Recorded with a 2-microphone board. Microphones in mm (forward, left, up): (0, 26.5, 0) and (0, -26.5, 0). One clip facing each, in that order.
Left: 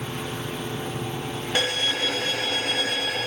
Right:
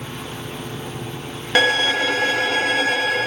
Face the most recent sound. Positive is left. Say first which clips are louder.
# right 9 dB
turn(degrees=-70)  # may be behind; listen again after turning